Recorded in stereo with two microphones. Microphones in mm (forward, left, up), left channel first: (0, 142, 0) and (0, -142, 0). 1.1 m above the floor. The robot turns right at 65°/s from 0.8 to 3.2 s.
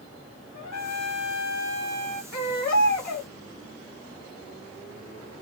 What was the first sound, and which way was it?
A trumpet, 90° left.